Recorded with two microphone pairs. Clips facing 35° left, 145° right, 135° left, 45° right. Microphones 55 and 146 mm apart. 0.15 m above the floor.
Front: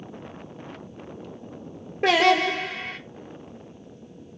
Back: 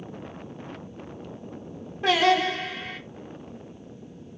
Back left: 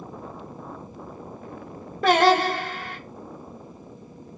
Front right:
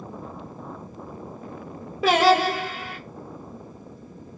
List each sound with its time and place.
2.0 s singing: 40° left, 0.8 m